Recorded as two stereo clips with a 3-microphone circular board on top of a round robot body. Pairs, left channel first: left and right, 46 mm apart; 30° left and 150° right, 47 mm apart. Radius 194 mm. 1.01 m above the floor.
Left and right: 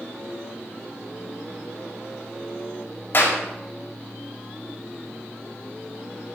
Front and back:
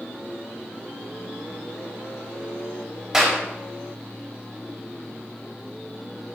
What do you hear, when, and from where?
3.1 s a clap: 135° left, 5.5 m